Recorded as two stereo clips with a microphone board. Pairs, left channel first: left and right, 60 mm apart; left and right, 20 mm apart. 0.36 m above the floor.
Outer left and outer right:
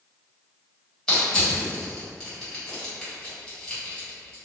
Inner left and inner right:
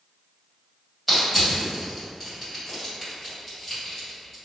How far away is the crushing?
About 1.6 m.